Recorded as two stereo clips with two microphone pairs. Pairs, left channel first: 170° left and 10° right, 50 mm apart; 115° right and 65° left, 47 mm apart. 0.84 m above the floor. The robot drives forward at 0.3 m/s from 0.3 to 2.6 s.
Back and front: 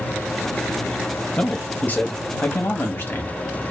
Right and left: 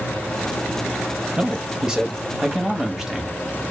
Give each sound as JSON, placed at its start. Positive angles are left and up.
{"t": 1.4, "sound": "a man speaking", "azimuth_deg": 120, "distance_m": 0.8}